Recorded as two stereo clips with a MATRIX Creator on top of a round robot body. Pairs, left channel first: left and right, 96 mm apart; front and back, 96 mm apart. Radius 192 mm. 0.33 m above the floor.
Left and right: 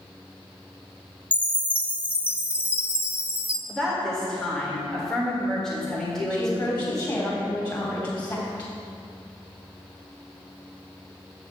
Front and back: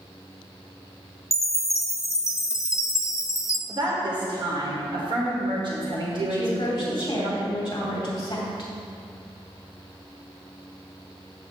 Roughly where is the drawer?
I don't hear a drawer.